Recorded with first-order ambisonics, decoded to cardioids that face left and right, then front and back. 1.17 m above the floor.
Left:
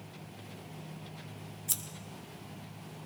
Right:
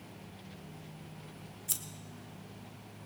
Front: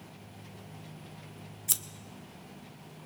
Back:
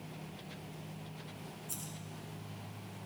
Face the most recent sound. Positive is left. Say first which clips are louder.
# left 2 dB, front 15 dB
turn(degrees=5)